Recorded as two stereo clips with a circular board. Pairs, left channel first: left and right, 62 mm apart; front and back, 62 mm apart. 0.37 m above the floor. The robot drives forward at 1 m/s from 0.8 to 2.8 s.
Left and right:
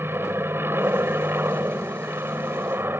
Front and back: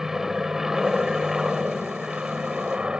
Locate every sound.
0.0 s an aircraft: 100° right; by 3.0 s 110° right